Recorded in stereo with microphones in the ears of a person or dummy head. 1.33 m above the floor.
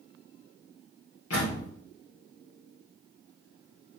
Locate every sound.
1.3 s a door slam: 85° left, 3 m